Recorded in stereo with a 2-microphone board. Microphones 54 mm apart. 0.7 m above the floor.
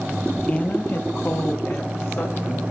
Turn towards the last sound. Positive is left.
turn(degrees=50)  # may be behind; listen again after turning